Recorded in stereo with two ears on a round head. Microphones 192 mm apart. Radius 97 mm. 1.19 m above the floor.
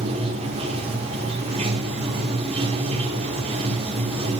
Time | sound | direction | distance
0.0 | running water | 25° right (ahead or behind) | 3 m